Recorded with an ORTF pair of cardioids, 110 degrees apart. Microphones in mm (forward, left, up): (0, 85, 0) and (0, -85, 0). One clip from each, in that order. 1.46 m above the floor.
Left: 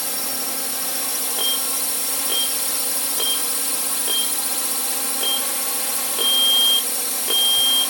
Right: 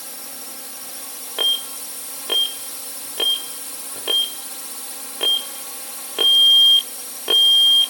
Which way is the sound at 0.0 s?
55° left.